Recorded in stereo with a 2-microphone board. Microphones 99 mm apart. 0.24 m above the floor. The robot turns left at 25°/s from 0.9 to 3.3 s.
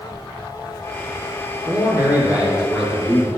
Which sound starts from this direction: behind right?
A man speaking, at 1.7 s.